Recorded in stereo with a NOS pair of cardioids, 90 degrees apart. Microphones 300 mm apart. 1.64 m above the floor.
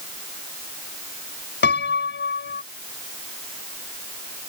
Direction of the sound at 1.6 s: 35° left.